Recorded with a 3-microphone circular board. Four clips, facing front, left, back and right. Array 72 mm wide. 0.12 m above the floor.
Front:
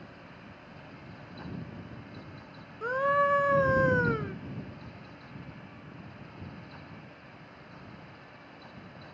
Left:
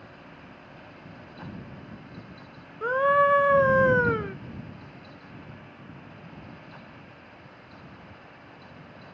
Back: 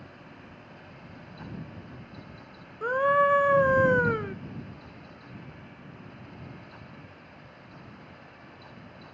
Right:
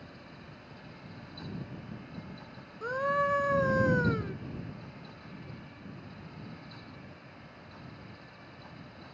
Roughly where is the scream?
Behind left.